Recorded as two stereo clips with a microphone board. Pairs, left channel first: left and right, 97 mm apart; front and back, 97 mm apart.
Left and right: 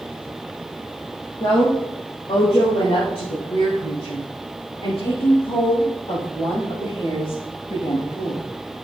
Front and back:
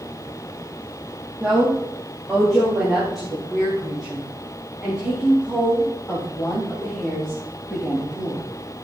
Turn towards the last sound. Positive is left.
turn(degrees=85)